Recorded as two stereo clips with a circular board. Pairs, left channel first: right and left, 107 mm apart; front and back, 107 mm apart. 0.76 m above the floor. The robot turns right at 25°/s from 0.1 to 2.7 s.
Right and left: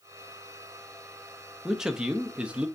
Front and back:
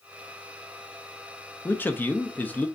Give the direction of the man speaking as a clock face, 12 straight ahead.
12 o'clock.